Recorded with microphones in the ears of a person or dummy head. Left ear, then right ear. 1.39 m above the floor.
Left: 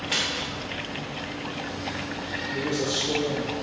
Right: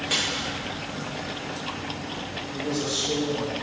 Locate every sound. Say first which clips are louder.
0.1 s a dropped coin: even; 25° right (ahead or behind), 1.1 m
2.5 s a man speaking: left 1 dB; 50° left (ahead or behind), 0.7 m